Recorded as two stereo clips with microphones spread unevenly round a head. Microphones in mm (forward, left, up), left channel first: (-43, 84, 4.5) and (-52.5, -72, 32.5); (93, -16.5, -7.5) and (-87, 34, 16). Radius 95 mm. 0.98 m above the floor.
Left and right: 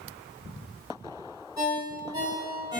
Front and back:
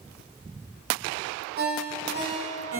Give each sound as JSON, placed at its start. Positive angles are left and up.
{"t": 1.6, "sound": "a ringtone", "azimuth_deg": -160, "distance_m": 3.0}